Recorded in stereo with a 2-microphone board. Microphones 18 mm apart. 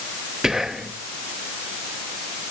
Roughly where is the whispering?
Right.